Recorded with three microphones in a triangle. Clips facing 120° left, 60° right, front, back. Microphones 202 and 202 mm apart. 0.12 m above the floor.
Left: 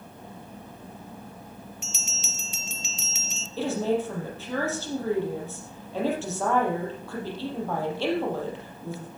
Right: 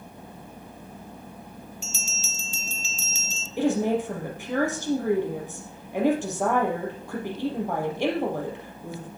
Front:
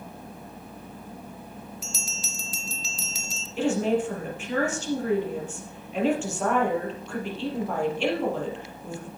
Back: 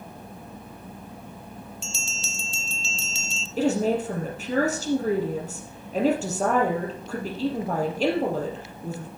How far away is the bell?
About 0.6 m.